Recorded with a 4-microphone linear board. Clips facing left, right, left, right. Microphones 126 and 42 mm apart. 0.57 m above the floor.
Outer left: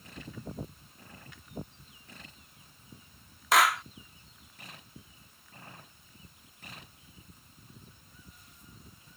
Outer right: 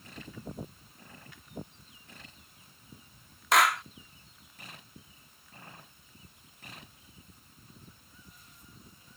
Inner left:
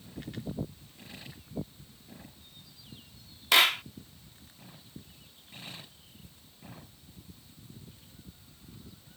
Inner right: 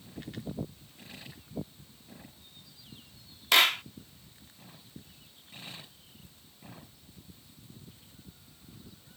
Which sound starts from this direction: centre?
A clap, at 3.5 s.